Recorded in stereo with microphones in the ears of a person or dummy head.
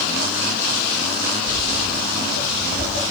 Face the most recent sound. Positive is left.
turn(degrees=45)  # may be behind; listen again after turning